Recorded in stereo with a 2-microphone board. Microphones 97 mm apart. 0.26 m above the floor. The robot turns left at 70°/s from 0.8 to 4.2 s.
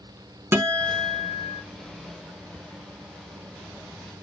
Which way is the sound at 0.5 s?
30° right.